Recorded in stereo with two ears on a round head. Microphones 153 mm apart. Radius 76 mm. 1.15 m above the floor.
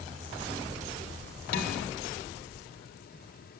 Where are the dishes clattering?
60° left (ahead or behind), 1.5 m.